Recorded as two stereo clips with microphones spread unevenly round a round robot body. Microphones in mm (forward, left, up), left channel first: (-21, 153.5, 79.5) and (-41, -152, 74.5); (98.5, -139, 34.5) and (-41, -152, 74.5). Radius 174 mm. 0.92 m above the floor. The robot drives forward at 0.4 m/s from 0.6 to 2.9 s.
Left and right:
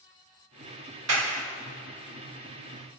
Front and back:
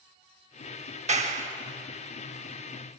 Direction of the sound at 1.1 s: 135° right.